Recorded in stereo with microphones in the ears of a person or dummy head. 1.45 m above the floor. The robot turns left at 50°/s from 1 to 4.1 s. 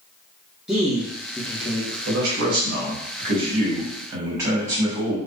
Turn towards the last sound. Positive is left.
turn(degrees=-160)